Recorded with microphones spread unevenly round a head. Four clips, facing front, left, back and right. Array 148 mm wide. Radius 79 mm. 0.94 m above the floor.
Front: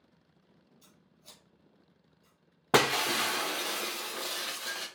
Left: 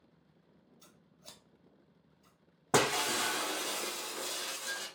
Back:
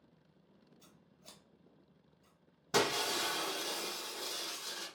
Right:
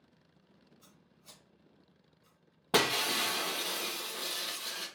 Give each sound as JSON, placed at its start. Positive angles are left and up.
{"t": 0.8, "sound": "scissors", "azimuth_deg": 115, "distance_m": 1.0}
{"t": 2.7, "sound": "breaking glass", "azimuth_deg": 5, "distance_m": 1.0}